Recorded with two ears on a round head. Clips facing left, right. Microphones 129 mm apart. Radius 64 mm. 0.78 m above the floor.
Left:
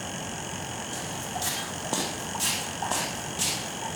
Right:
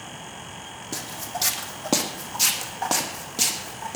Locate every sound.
0.9 s footsteps: 75° right (ahead or behind), 2.5 m; by 4.0 s 65° right (ahead or behind), 3.5 m